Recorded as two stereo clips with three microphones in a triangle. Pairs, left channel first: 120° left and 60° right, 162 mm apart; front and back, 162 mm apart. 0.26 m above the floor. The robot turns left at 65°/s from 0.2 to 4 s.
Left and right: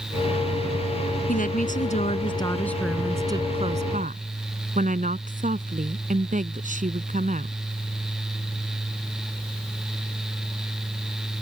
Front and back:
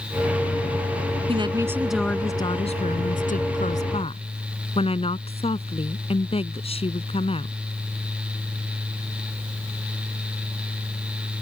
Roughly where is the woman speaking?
Behind left.